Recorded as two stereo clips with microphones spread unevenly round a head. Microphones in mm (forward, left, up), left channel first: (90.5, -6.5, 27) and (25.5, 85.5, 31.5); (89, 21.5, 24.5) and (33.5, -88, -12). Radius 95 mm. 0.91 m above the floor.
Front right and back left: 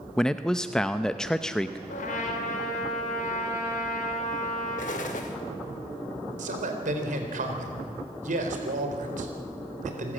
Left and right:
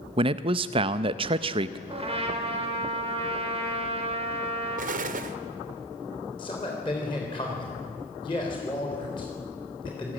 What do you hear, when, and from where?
0.2 s a man speaking: 140° right, 0.6 m
1.9 s a trumpet: 80° right, 3.5 m
4.8 s an explosion: 105° right, 1.2 m
6.4 s a man speaking: 130° left, 3.5 m